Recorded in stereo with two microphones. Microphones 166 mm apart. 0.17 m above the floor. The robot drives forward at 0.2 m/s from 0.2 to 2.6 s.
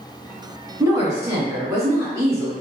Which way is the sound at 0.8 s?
20° right (ahead or behind).